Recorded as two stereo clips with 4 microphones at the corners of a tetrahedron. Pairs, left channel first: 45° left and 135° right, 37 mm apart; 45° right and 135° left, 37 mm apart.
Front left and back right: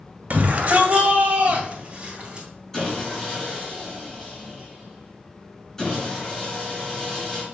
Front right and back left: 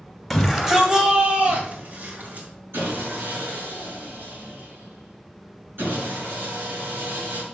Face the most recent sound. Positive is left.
turn(degrees=125)